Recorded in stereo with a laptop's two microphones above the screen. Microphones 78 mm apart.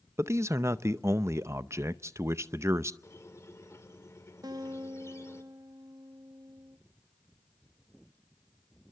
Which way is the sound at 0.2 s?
35° right (ahead or behind).